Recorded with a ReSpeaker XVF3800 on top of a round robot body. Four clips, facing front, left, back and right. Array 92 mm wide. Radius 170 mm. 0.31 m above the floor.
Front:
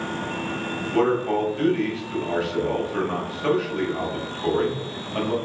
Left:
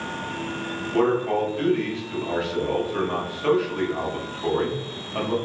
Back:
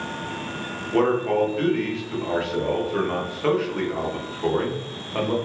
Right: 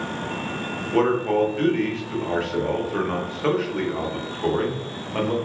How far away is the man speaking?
About 1.2 m.